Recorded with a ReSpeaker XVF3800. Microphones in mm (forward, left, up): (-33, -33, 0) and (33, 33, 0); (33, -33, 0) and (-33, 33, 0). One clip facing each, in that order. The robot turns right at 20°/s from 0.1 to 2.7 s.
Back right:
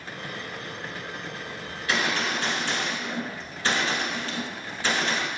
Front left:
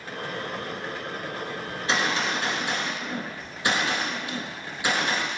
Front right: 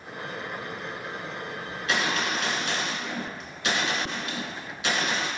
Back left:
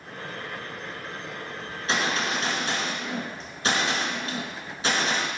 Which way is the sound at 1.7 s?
90° left.